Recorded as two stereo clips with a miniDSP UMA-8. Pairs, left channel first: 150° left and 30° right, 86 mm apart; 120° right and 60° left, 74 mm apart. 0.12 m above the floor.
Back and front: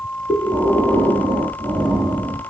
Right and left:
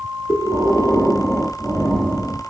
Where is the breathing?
45° right, 1.9 m.